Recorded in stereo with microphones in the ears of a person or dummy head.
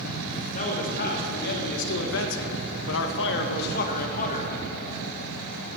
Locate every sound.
0.5 s a man speaking: 45° left (ahead or behind), 1.7 m; by 4.5 s 40° left (ahead or behind), 1.4 m